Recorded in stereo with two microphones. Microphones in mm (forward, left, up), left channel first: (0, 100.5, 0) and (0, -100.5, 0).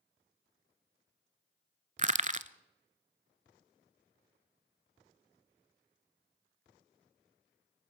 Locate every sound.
2.0 s crushing: 40° right (ahead or behind), 0.7 m